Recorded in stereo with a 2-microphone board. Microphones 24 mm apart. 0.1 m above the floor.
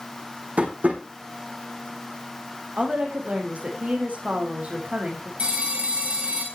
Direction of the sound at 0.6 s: 75° right (ahead or behind).